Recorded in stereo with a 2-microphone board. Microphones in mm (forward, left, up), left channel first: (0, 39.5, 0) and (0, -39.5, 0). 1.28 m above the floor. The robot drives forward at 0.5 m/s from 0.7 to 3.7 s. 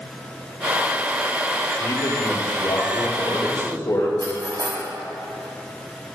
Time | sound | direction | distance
1.8 | a man speaking | 55° left (ahead or behind) | 3 m
4.2 | cutlery clinking | 70° right (ahead or behind) | 4.5 m